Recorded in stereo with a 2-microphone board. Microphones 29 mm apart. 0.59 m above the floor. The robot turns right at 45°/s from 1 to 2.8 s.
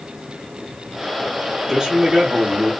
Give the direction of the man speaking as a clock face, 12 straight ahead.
5 o'clock.